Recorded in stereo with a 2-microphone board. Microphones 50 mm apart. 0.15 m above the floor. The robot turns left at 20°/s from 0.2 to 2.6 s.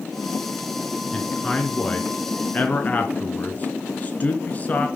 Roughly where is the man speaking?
Centre.